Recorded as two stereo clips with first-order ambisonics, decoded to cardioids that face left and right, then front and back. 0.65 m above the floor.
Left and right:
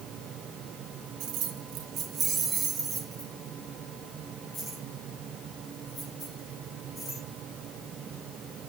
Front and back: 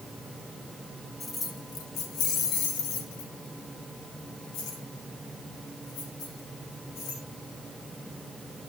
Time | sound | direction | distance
1.2 | keys jangling | 70° right | 1.7 m